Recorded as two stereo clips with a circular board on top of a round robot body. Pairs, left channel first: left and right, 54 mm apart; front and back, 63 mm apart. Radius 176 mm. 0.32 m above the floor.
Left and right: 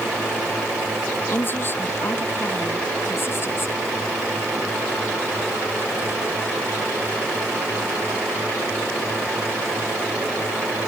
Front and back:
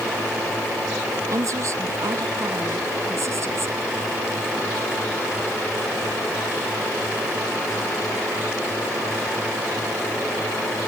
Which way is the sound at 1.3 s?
145° left.